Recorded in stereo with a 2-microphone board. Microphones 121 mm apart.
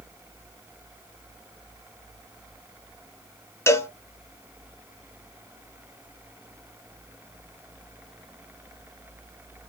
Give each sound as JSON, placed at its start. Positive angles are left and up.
{"t": 3.7, "sound": "a cowbell", "side_deg": 20, "distance_m": 1.0}